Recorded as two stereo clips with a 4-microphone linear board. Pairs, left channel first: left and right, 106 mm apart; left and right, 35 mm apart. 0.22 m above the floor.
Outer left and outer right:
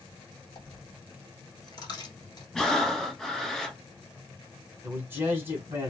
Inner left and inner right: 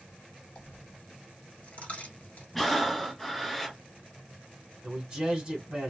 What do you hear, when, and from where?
0.6 s a dropped coin: 40° left (ahead or behind), 1.2 m
2.5 s breathing: 5° left (ahead or behind), 0.7 m
4.8 s a man speaking: 20° right (ahead or behind), 1.6 m